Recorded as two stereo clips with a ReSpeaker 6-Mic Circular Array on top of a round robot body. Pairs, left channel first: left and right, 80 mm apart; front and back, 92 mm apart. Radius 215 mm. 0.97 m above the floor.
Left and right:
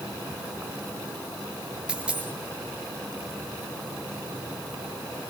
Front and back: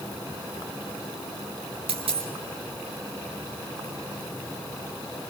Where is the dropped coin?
170° right, 2 m.